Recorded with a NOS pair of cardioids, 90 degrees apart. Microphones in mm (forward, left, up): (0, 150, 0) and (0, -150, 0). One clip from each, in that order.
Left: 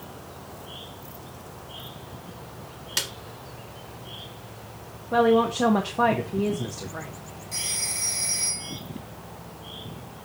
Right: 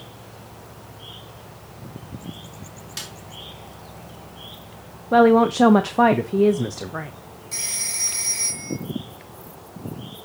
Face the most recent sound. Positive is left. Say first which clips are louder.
# right 3 dB
turn(degrees=-35)